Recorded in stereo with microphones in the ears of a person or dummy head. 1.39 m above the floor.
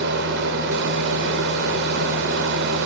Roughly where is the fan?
Right.